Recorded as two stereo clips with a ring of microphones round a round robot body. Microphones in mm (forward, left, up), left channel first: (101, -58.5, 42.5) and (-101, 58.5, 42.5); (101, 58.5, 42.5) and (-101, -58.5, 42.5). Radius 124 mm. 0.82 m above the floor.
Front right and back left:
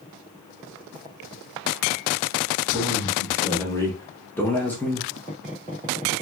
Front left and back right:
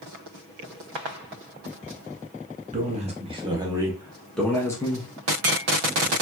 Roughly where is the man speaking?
Right.